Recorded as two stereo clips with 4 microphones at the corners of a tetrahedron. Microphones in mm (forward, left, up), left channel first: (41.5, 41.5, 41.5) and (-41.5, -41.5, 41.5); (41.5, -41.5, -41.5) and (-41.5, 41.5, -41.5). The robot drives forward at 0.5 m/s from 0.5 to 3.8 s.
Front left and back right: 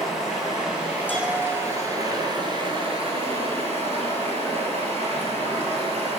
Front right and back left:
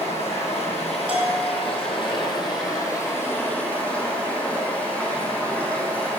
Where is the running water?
50° right, 1.5 m; by 6.2 s 125° right, 1.4 m.